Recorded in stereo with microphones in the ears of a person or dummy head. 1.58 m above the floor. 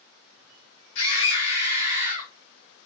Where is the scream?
65° left (ahead or behind), 4.5 m; by 2.3 s 55° left (ahead or behind), 4.5 m.